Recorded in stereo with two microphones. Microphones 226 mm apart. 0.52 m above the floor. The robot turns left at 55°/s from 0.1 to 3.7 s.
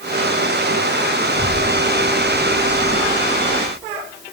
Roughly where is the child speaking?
Left.